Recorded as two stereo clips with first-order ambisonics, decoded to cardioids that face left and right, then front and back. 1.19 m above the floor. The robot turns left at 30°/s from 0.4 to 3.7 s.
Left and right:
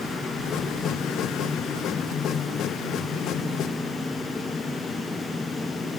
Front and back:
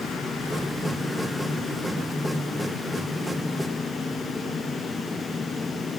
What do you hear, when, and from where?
Only background noise.